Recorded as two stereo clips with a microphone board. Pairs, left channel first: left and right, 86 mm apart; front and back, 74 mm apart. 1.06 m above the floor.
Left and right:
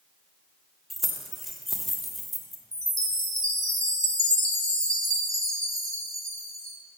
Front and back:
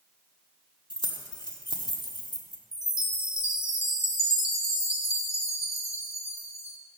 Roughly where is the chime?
Ahead right.